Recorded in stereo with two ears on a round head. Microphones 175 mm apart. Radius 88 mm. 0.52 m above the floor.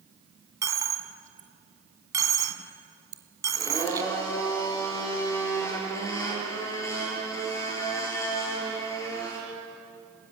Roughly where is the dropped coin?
Centre.